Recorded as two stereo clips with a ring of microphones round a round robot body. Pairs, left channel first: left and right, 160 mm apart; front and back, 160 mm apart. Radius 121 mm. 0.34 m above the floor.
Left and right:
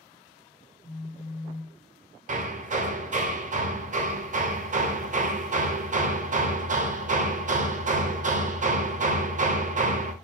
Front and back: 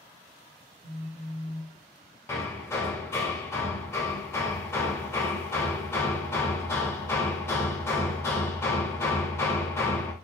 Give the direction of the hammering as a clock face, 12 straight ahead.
2 o'clock.